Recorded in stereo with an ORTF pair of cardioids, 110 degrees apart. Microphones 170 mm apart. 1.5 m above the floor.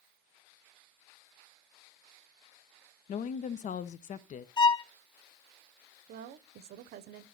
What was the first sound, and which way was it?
A woman speaking, 50° left.